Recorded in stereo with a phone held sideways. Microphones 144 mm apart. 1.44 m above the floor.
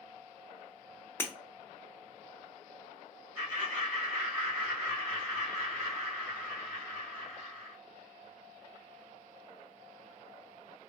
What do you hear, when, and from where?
1.2 s breaking glass: 15° left (ahead or behind), 0.5 m
3.4 s laughter: 10° left (ahead or behind), 1.8 m